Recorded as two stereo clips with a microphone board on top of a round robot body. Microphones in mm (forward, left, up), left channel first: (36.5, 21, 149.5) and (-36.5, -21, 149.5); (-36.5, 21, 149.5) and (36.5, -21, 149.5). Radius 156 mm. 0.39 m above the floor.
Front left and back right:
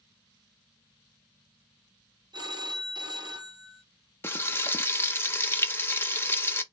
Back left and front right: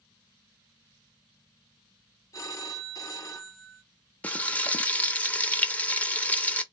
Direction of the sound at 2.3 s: 170° right.